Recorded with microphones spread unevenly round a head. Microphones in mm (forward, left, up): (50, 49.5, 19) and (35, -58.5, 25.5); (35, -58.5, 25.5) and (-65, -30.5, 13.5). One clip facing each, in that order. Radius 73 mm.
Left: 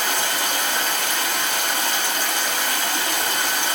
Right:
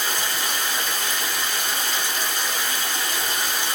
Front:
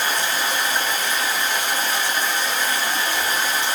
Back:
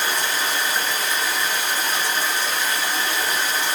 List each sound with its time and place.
0.0 s running water: 55° left, 0.9 m